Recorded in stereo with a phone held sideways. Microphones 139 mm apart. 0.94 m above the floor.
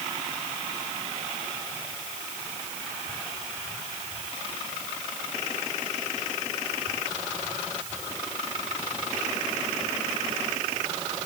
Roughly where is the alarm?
No alarm in this recording.